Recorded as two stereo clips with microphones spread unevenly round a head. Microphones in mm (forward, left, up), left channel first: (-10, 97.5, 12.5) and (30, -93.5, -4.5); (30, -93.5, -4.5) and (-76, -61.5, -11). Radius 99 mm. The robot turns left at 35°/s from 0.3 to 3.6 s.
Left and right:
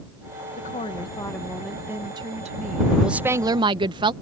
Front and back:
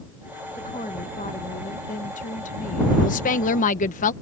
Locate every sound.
0.6 s a woman speaking: 50° left; by 2.9 s 35° right
3.0 s a woman speaking: 10° left; by 4.1 s 10° right